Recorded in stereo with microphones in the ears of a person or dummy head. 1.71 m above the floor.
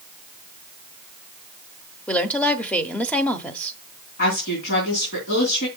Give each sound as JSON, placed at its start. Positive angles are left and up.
{"t": 2.1, "sound": "a woman speaking", "side_deg": 5, "distance_m": 0.9}
{"t": 4.2, "sound": "a woman speaking", "side_deg": 60, "distance_m": 3.5}